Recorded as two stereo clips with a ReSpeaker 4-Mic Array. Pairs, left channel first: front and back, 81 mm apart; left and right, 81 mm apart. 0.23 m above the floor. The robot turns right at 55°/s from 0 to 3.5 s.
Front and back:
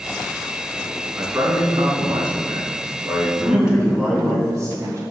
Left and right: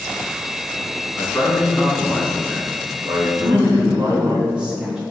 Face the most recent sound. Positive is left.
turn(degrees=-160)